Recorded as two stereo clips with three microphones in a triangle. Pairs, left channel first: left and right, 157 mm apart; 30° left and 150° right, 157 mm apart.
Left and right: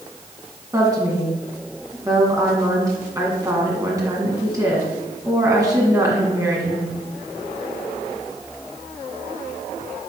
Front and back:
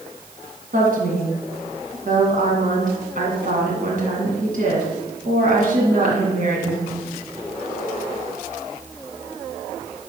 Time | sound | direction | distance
0.7 | a woman speaking | 155° right | 1.9 m